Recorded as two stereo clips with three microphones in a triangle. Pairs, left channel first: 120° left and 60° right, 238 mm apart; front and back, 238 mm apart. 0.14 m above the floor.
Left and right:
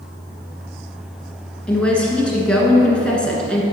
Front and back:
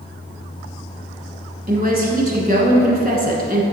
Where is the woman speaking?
155° right, 1.3 m.